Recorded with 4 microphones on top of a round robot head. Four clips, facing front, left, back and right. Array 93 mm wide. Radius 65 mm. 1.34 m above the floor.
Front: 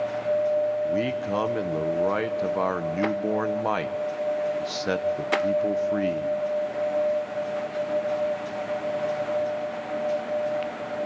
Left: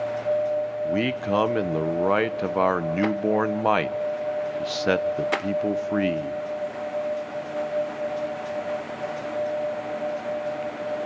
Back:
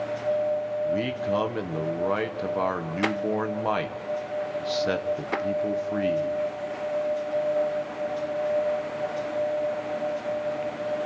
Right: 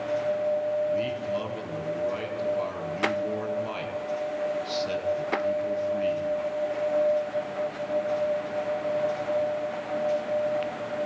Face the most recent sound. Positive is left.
turn(degrees=80)